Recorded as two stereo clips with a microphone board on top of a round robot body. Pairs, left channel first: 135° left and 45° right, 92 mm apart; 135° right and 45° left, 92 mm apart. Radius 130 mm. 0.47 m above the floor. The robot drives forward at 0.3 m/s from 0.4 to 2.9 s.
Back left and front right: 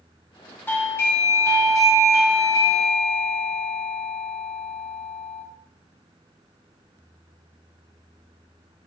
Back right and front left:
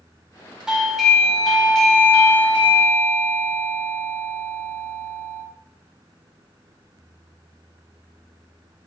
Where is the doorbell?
115° left, 1.1 m; by 5.4 s 160° left, 1.4 m.